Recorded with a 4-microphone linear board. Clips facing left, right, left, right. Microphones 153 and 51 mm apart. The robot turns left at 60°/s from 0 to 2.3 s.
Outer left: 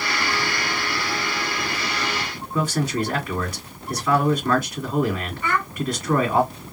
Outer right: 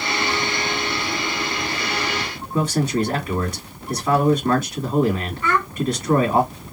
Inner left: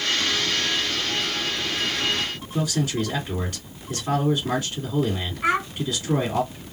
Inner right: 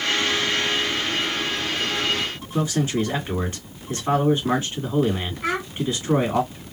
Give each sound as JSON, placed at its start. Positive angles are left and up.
{"t": 2.5, "sound": "a man speaking", "side_deg": -25, "distance_m": 2.0}
{"t": 5.4, "sound": "a child speaking", "side_deg": 15, "distance_m": 1.5}